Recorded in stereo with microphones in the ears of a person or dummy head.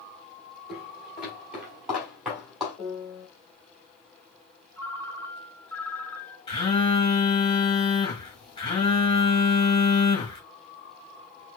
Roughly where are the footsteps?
Centre.